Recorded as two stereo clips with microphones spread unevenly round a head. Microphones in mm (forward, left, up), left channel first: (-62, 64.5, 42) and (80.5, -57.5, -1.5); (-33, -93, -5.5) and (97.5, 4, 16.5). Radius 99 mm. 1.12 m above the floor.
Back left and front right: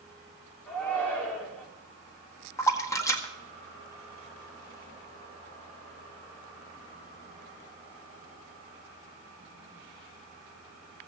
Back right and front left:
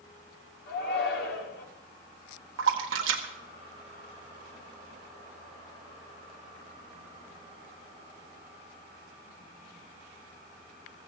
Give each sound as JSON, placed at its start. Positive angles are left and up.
{"t": 0.7, "sound": "a shout", "azimuth_deg": -135, "distance_m": 3.5}
{"t": 2.6, "sound": "a splash", "azimuth_deg": 65, "distance_m": 1.7}